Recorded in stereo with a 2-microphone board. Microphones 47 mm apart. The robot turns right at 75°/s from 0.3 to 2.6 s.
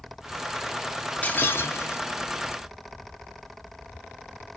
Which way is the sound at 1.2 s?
40° left.